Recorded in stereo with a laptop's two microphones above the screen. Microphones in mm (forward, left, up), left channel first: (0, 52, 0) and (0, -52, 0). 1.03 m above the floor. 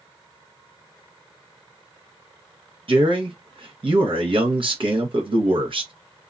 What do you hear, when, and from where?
2.9 s a man speaking: 55° right (ahead or behind), 1.0 m